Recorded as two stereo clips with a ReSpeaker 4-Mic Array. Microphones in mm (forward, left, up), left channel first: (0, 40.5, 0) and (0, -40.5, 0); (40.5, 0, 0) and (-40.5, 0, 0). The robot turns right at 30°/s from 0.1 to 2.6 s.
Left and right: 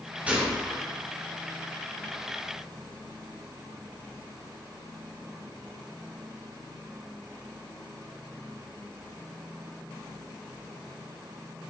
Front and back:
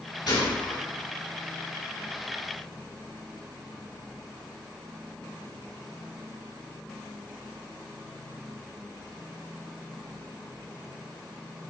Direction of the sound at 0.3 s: 20° right.